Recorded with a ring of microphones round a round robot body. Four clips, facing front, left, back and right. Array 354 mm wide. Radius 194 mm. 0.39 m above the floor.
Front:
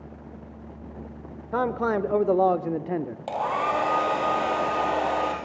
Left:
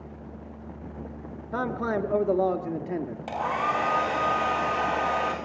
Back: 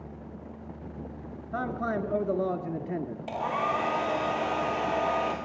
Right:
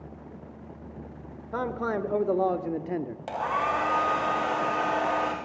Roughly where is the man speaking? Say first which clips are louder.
Left 1 dB, front 6 dB; ahead.